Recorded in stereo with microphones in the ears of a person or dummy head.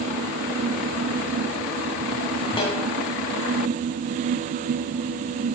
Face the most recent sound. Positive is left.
turn(degrees=25)  # may be behind; listen again after turning